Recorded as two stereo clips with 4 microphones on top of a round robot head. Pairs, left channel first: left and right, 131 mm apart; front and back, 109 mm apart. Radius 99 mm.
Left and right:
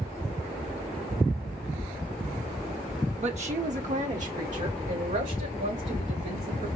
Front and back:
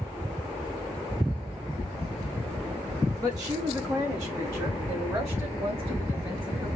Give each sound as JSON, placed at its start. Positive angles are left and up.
{"t": 3.2, "sound": "a woman speaking", "azimuth_deg": -120, "distance_m": 1.0}